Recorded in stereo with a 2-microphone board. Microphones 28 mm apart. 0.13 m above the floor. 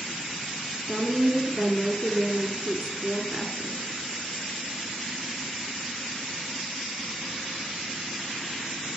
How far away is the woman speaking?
About 1.9 m.